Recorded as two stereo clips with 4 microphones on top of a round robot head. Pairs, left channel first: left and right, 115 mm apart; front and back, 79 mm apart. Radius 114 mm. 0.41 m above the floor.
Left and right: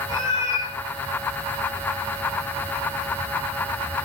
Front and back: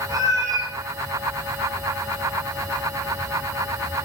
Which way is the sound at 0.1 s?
145° left.